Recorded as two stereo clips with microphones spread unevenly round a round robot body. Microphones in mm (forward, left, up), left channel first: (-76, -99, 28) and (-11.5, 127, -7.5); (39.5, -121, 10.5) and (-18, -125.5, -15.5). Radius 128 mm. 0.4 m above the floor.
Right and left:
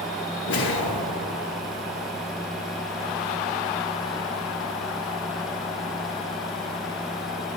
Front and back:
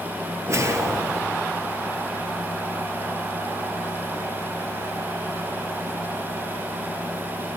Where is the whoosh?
135° right, 1.9 m.